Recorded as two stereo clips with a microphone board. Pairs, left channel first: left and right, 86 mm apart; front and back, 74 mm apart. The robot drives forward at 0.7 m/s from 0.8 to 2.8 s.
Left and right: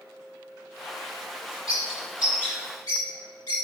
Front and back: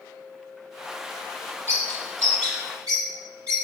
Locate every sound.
1.7 s a bird: 130° left, 3 m; by 3.6 s 140° left, 3.5 m